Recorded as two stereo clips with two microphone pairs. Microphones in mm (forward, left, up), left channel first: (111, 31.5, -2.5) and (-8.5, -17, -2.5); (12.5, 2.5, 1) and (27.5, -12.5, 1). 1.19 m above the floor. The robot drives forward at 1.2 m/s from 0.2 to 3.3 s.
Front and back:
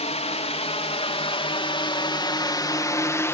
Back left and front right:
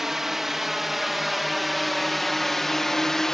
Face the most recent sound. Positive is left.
turn(degrees=80)